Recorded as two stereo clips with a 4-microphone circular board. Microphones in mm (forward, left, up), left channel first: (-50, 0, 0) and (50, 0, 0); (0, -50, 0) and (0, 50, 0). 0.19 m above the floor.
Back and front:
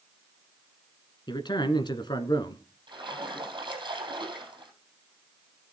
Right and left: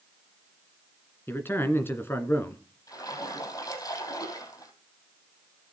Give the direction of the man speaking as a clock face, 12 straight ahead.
5 o'clock.